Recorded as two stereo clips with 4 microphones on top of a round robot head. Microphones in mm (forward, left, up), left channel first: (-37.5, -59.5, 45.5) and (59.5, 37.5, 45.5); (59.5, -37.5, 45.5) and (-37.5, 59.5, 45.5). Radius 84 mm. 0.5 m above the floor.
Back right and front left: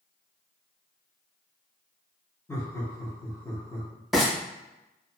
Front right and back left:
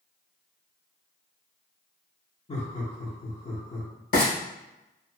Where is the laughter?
70° right, 1.2 m.